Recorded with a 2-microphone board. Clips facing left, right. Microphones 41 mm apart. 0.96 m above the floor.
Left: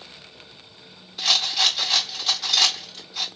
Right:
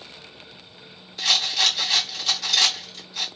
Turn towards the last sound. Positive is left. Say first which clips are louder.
# even
turn(degrees=5)  # may be behind; listen again after turning